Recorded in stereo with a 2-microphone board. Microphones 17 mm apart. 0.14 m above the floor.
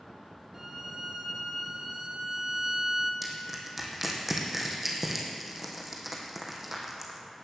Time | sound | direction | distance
0.5 | a violin | 15° right (ahead or behind) | 1.9 m
3.2 | crushing | 10° right (ahead or behind) | 2 m